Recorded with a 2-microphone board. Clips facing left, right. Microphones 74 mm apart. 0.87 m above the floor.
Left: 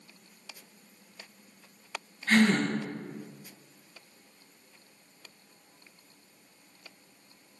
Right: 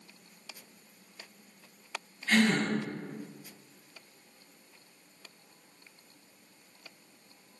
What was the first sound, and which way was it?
A gasp, 45° left (ahead or behind).